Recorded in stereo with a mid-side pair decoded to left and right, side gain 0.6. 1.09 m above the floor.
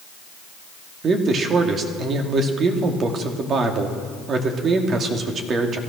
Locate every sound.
1.0 s a man speaking: 40° right, 2.5 m